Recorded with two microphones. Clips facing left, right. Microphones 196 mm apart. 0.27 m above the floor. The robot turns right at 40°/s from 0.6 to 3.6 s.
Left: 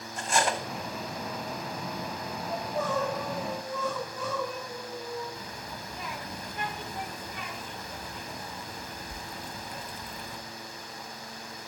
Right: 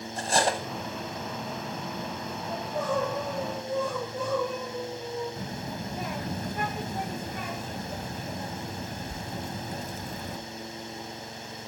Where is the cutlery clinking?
35° right (ahead or behind), 1.0 m.